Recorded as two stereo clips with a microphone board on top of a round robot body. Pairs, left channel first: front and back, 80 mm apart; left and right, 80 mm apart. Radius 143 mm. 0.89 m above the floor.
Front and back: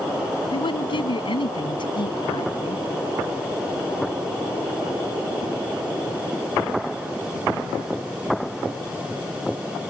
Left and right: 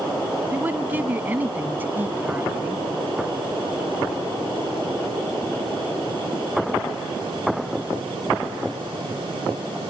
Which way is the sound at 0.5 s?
20° right.